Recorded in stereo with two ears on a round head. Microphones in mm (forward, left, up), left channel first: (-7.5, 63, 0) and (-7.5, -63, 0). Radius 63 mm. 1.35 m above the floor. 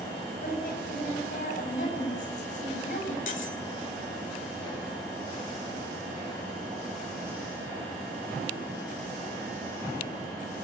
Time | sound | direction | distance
0.4 | a woman speaking | 65° left (ahead or behind) | 9 m
3.3 | cutlery clinking | 65° left (ahead or behind) | 3 m